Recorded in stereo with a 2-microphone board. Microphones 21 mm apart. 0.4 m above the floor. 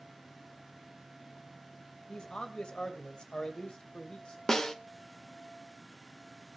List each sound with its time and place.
2.1 s a man speaking: 50° left (ahead or behind), 1.9 m
4.5 s a snare drum: 30° left (ahead or behind), 1.1 m